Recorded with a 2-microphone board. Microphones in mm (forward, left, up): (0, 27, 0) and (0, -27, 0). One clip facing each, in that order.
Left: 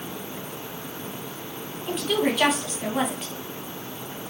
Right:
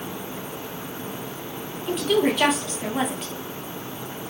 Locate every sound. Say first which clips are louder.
1.9 s a woman speaking: right 3 dB; centre (ahead or behind), 1.8 m